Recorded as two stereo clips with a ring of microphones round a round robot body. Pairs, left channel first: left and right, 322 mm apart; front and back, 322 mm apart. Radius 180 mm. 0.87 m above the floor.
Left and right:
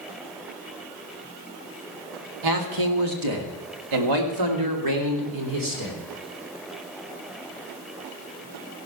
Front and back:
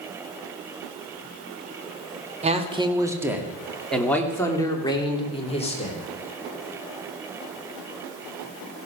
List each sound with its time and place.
2.4 s a man speaking: 110° right, 2.5 m; by 6.0 s 70° right, 4 m